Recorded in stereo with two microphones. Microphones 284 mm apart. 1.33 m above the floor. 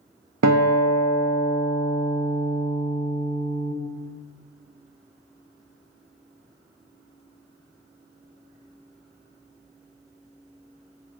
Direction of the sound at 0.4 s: 85° right.